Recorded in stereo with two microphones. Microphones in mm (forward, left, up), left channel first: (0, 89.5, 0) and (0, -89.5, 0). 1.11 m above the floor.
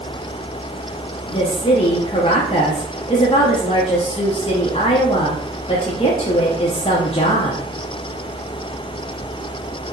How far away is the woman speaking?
About 0.6 m.